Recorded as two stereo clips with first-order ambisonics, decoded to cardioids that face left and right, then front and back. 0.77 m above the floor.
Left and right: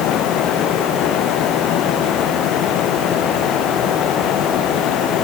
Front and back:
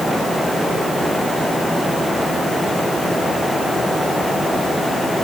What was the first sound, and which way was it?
Only background noise.